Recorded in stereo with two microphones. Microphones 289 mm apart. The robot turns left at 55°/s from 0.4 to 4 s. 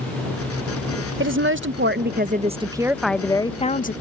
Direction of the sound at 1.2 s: 75° right.